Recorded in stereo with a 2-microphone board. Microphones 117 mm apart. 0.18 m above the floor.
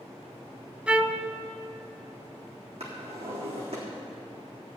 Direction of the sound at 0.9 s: 10° right (ahead or behind).